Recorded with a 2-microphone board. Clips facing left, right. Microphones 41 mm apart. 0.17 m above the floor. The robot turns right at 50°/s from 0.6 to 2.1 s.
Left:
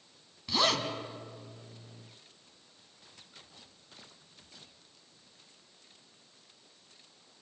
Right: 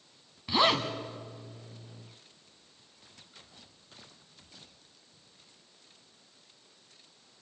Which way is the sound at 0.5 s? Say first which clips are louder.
Right 3 dB; 20° right (ahead or behind).